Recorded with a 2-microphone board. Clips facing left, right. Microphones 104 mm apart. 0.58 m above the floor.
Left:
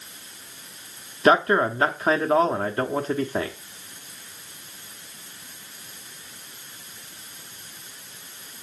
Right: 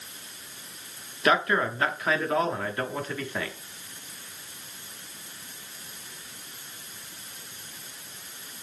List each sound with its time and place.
1.2 s a man speaking: 30° left (ahead or behind), 1.0 m